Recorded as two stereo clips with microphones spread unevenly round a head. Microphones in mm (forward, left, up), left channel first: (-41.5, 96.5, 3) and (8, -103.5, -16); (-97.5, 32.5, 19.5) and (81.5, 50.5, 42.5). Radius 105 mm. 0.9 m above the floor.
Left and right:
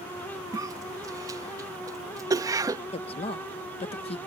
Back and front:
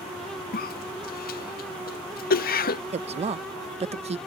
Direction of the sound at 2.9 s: 50° left.